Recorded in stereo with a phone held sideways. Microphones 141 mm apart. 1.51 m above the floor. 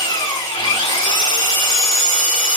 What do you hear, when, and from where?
0.0 s an engine running: 35° left (ahead or behind), 1.7 m